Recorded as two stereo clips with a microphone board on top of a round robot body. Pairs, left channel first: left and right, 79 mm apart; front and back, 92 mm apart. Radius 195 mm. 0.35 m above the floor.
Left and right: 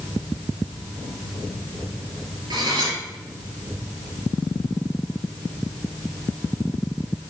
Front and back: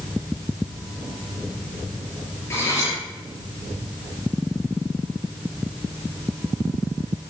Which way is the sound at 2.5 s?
60° right.